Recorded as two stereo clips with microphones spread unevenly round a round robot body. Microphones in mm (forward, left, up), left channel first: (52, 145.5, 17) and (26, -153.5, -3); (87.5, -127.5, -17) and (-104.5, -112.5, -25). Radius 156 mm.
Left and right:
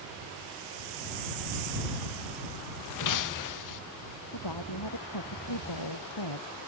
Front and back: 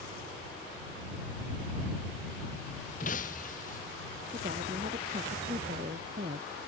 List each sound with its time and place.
3.0 s breaking glass: 60° left
4.3 s a woman speaking: 110° left